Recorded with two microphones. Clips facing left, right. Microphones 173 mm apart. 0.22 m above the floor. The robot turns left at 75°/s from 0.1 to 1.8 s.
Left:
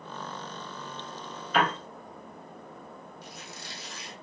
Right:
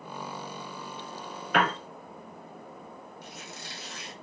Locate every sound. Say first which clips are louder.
1.5 s a piano: even; 60° right (ahead or behind), 1.0 m; by 1.8 s 70° right (ahead or behind), 1.0 m
3.2 s a squeak: right 1 dB; 55° right (ahead or behind), 2.0 m